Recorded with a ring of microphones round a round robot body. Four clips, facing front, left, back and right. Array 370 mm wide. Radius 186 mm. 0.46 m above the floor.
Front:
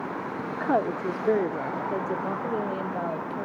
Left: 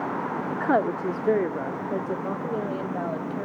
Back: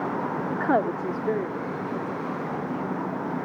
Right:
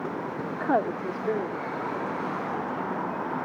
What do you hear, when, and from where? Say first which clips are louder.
0.5 s a woman speaking: left 2 dB, back 1 dB; 165° left, 1.0 m; by 3.5 s 45° left, 3 m